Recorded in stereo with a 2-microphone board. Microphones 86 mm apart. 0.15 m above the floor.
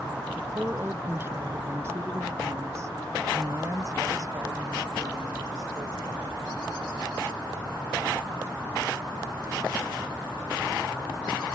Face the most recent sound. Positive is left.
turn(degrees=-40)  # may be behind; listen again after turning